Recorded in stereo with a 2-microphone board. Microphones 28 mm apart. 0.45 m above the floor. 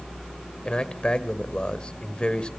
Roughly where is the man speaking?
Left.